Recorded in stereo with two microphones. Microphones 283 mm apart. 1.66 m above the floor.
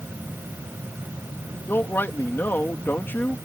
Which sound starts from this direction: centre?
A man speaking, at 1.7 s.